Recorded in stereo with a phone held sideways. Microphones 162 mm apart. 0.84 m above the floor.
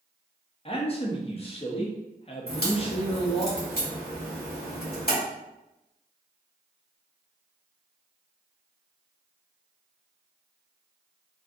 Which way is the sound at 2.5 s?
85° left.